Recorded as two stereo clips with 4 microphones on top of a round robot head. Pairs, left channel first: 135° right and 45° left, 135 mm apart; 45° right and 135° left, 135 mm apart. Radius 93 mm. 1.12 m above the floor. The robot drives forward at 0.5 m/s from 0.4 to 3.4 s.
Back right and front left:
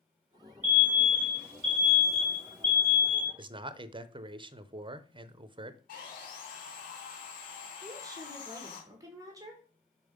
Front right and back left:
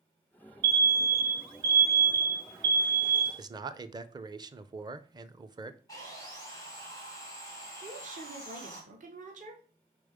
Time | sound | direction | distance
0.6 | an alarm | 125° left | 1.4 m
3.4 | a man speaking | 85° left | 0.7 m
5.9 | sawing | 115° right | 2 m
7.8 | a woman speaking | 110° left | 1.3 m